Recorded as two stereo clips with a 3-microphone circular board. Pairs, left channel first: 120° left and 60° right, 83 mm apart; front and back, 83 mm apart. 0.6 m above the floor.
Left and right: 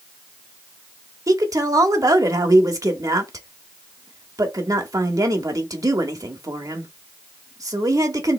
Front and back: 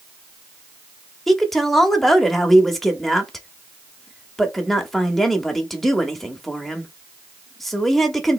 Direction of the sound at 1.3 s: 85° right.